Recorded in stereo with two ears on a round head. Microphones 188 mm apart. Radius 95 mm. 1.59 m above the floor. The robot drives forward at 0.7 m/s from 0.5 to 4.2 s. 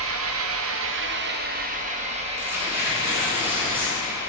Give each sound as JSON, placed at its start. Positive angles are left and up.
{"t": 0.0, "sound": "an engine running", "side_deg": -70, "distance_m": 0.8}
{"t": 2.4, "sound": "tearing paper", "side_deg": -15, "distance_m": 3.5}